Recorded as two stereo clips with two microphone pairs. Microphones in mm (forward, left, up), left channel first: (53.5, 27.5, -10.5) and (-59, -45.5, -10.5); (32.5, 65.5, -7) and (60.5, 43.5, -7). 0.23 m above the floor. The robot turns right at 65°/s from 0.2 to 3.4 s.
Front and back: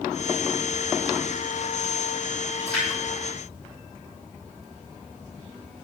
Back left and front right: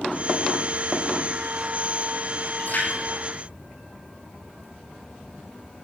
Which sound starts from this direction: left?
A splash, at 2.6 s.